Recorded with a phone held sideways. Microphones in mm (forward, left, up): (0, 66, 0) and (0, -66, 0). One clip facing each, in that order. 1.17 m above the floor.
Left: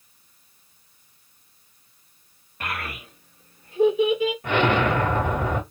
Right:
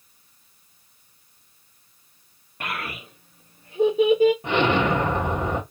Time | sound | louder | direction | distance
2.6 | a child speaking | even | 15° right (ahead or behind) | 1.6 m
4.4 | an explosion | even | 20° right (ahead or behind) | 1.7 m